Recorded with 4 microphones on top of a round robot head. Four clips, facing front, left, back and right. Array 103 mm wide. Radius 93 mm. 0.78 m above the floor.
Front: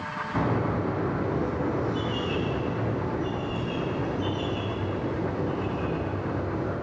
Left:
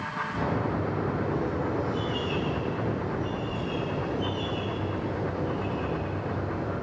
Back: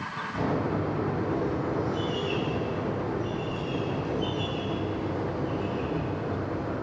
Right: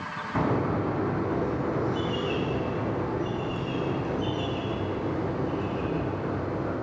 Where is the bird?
55° right, 9 m.